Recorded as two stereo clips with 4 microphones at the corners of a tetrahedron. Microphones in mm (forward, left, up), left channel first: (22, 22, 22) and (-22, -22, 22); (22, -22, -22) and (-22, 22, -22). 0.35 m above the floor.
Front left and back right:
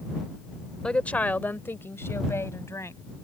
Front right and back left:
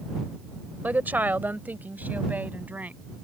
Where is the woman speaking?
110° left; by 3.0 s 75° left.